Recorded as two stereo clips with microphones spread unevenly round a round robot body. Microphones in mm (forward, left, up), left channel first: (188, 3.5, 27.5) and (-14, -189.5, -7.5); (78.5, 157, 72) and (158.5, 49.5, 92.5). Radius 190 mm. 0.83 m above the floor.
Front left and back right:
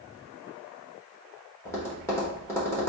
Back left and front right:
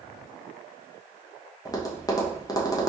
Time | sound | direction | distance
1.6 | tapping | 130° left | 1.0 m